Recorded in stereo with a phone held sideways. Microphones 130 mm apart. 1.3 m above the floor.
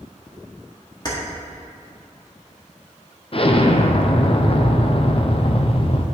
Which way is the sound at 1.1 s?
30° left (ahead or behind).